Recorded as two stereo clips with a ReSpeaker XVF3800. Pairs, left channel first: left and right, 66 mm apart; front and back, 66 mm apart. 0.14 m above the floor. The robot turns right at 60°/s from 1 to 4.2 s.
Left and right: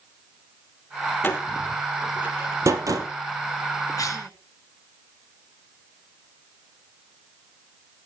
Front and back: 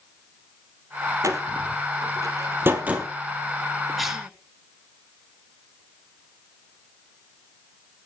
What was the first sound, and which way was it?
A door slam, 145° left.